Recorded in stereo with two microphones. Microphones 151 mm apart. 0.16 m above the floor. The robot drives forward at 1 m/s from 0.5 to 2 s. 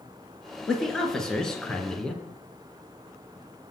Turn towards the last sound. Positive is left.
turn(degrees=5)  # may be behind; listen again after turning